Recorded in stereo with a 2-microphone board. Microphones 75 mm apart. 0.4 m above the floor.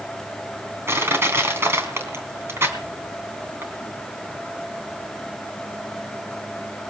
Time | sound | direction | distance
0.9 | crushing | 35° right (ahead or behind) | 3 m